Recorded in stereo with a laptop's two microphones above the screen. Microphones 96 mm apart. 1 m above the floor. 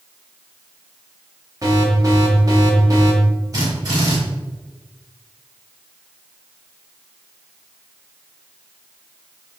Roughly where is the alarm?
Right.